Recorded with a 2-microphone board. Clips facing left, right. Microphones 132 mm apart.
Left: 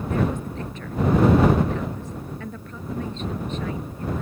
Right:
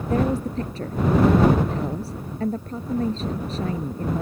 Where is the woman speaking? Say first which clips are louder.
Right 4 dB; 35° right (ahead or behind).